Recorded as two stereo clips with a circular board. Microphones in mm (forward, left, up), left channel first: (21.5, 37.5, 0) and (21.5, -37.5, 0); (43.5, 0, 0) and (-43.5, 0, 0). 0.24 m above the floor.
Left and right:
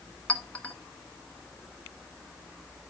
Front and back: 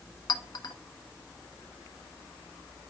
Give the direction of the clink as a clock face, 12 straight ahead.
11 o'clock.